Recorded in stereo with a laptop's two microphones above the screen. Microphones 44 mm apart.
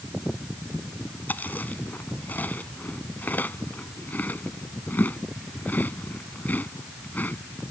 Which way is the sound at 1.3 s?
40° left (ahead or behind).